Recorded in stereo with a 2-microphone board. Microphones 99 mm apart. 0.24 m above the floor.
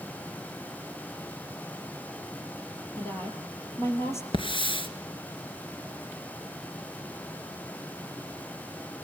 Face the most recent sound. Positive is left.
turn(degrees=65)  # may be behind; listen again after turning